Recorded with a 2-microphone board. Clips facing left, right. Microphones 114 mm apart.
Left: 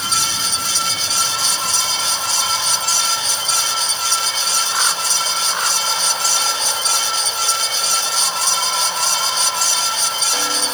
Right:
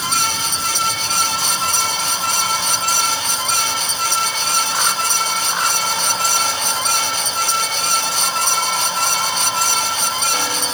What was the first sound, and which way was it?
Only background noise.